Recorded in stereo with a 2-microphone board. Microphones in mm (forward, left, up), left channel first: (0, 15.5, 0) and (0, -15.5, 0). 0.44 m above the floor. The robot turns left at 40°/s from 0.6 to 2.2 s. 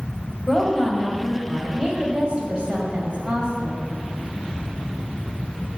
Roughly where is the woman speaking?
Ahead.